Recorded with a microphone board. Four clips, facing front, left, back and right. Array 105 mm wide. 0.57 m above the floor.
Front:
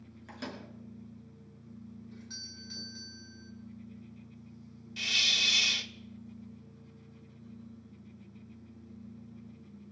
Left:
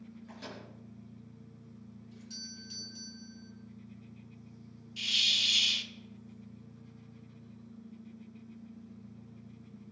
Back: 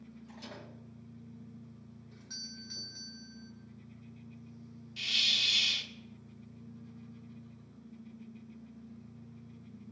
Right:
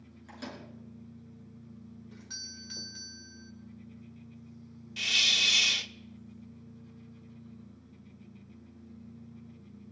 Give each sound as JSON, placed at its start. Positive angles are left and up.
{"t": 0.3, "sound": "a microwave", "azimuth_deg": -20, "distance_m": 5.5}
{"t": 2.1, "sound": "a doorbell", "azimuth_deg": -90, "distance_m": 2.5}
{"t": 5.0, "sound": "a hiss", "azimuth_deg": -60, "distance_m": 0.6}